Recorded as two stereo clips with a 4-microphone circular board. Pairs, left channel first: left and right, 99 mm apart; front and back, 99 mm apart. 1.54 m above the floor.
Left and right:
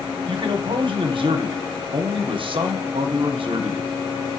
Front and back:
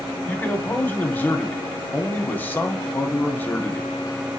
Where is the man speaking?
70° right, 0.6 m.